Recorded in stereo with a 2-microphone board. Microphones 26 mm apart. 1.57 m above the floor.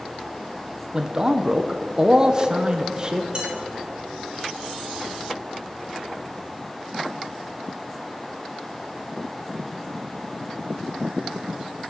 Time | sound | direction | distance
0.9 | a man speaking | 25° right (ahead or behind) | 0.6 m
3.4 | dishes clattering | 35° right (ahead or behind) | 3.5 m